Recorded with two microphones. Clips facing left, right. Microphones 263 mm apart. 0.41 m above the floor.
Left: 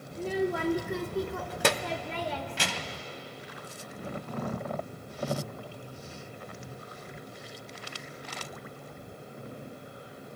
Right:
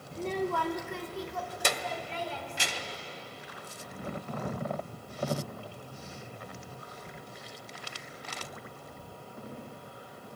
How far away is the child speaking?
About 0.6 m.